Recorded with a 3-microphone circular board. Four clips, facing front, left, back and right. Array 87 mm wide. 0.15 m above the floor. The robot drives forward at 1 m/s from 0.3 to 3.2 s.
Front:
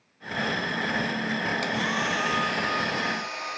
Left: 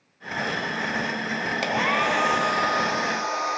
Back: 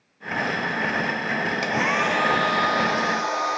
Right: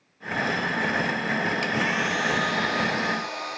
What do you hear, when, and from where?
1.6 s a hair dryer: 115° left, 0.9 m; by 3.6 s 155° left, 2 m